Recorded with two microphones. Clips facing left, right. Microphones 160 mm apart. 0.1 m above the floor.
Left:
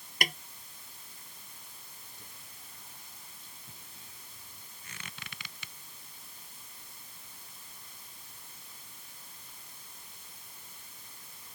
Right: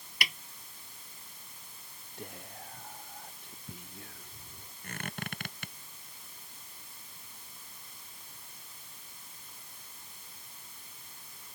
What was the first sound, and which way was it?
A snare drum, 45° left (ahead or behind).